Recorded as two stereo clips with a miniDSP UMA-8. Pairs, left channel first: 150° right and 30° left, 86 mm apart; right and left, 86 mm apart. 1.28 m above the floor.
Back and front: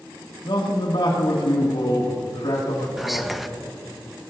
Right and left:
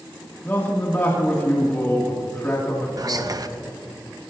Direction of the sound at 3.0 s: 120° left.